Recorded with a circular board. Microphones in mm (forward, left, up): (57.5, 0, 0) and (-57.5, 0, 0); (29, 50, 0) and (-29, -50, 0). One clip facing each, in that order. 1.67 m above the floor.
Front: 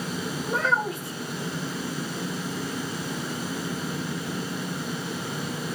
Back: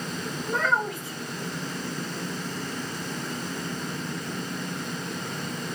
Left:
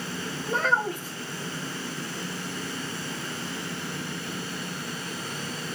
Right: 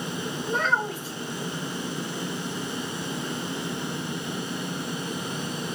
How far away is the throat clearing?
No throat clearing in this recording.